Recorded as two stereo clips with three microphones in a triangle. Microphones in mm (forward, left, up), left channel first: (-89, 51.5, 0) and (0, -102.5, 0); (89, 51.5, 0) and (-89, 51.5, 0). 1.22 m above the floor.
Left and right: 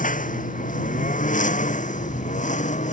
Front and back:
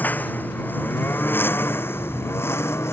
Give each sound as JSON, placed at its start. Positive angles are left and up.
{"t": 0.0, "sound": "a lawn mower", "azimuth_deg": 80}